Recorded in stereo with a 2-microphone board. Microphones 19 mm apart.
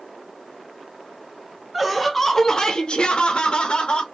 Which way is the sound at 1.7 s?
5° right (ahead or behind).